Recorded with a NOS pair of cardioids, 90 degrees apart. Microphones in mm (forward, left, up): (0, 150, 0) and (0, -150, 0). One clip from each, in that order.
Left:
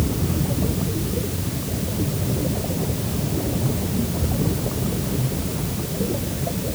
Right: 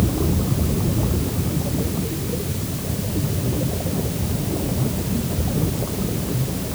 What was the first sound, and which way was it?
Only background noise.